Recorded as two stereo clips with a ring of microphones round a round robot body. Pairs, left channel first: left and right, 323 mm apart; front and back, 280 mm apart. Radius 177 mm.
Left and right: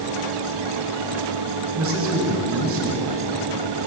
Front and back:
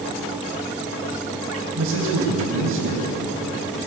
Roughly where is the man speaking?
Behind right.